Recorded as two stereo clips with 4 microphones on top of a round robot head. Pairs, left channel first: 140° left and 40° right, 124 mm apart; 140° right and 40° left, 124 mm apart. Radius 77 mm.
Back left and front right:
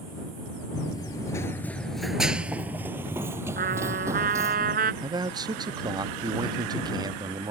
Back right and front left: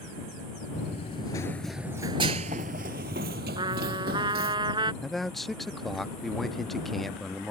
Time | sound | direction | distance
0.7 | running footsteps | 160° right | ?
3.6 | a trumpet | 20° right | ?
5.0 | a man speaking | 55° right | ?